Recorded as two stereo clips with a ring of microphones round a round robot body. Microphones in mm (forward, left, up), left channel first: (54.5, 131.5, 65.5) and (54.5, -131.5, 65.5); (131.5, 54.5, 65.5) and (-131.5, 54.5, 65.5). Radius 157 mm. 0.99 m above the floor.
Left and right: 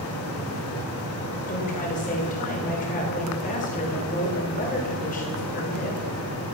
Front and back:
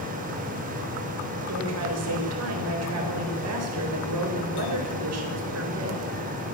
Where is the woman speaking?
155° left, 4.5 m.